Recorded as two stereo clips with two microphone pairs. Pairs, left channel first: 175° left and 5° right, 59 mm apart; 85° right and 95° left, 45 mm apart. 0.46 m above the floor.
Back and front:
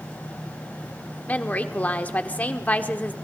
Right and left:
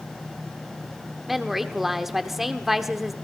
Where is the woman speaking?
165° left, 1.2 m.